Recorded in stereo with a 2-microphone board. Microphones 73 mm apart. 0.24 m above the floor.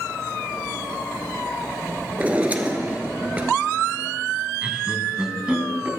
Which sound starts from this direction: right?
A drawer, at 2.2 s.